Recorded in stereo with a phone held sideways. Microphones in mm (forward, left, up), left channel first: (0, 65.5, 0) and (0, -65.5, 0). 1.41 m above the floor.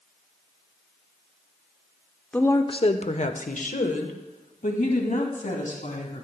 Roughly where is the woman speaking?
Centre.